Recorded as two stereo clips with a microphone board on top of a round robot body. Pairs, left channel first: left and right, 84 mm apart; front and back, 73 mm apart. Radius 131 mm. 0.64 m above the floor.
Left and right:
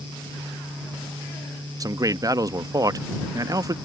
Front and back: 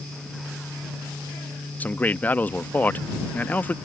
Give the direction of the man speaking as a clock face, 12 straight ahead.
2 o'clock.